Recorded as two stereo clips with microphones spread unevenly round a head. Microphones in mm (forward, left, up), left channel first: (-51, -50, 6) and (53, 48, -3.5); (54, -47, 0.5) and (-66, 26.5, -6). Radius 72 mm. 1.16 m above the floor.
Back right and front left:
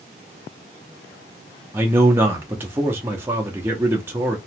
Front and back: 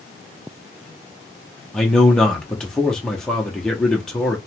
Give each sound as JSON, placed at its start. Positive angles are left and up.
{"t": 1.7, "sound": "a man speaking", "azimuth_deg": 55, "distance_m": 0.6}